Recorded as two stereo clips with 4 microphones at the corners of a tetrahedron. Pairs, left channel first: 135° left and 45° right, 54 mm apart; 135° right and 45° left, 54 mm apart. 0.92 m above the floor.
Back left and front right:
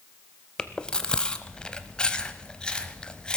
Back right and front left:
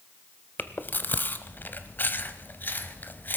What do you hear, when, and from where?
0.6 s chewing: 160° right, 0.9 m